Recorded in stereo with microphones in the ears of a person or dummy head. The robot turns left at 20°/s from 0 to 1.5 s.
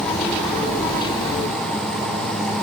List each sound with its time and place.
Only background noise.